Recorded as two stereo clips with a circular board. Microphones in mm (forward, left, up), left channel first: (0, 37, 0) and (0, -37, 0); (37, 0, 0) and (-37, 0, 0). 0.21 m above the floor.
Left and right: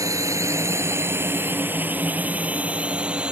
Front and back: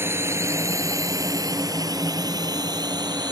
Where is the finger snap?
I don't hear a finger snap.